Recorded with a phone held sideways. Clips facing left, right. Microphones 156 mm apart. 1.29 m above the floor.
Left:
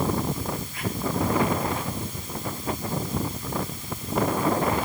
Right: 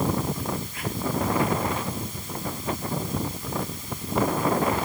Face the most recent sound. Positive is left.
No sound to turn to.